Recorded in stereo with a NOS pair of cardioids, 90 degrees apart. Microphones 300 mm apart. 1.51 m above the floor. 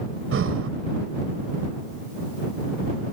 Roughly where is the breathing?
Ahead right.